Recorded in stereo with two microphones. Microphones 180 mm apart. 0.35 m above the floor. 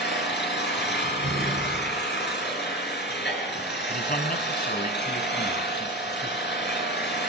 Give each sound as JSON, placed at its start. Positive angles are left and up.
{"t": 0.0, "sound": "an engine running", "side_deg": 75, "distance_m": 5.5}
{"t": 1.0, "sound": "a door slam", "side_deg": -75, "distance_m": 6.5}
{"t": 3.9, "sound": "a man speaking", "side_deg": 55, "distance_m": 2.0}